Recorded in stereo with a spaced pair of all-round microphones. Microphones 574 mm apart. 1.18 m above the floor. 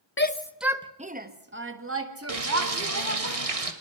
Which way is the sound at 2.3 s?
80° right.